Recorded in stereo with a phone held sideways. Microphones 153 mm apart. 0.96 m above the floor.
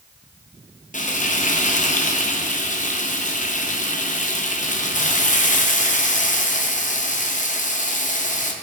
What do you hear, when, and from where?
0.9 s frying: 50° left (ahead or behind), 0.7 m